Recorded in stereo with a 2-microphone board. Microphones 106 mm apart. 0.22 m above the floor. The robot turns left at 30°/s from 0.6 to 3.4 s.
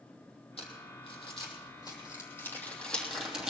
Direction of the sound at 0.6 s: 75° left (ahead or behind).